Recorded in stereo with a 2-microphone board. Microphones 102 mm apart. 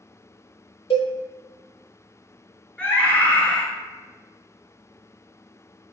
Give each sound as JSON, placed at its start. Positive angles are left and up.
{"t": 0.9, "sound": "a cowbell", "side_deg": 70, "distance_m": 0.9}
{"t": 2.8, "sound": "a scream", "side_deg": 15, "distance_m": 1.3}